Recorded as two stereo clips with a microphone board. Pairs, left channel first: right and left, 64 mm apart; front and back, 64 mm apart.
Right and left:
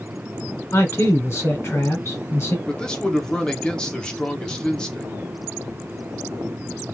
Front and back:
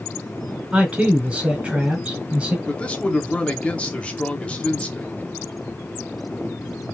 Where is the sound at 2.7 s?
35° right, 0.9 m.